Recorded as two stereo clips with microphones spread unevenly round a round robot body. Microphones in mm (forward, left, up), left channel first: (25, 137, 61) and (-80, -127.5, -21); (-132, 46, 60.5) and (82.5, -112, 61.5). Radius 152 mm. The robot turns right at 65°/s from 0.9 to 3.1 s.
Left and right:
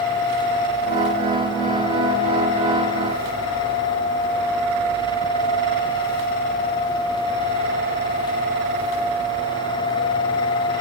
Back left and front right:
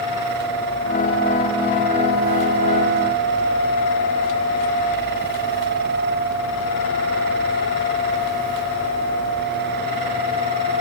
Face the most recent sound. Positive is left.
No sound to turn to.